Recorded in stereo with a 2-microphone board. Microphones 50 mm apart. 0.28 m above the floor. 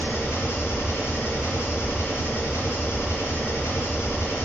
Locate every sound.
0.0 s an engine running: 65° left (ahead or behind), 0.9 m